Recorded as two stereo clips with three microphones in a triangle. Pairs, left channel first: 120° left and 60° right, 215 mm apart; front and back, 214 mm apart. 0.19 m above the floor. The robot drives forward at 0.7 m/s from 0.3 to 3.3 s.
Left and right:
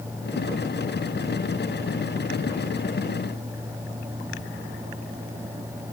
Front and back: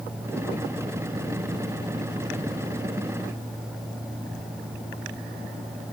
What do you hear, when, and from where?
Only background noise.